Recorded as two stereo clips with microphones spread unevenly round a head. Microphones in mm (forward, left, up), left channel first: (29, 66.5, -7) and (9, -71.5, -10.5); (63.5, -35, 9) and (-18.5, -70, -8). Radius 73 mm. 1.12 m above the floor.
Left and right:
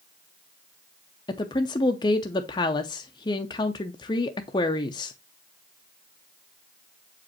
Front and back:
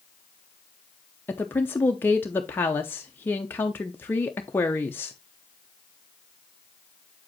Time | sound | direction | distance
1.3 | a woman speaking | 90° left | 0.6 m